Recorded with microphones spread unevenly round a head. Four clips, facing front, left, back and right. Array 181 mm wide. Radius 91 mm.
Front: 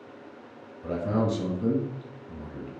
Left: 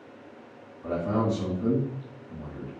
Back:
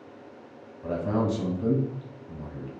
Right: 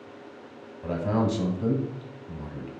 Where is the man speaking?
100° right, 1.1 m.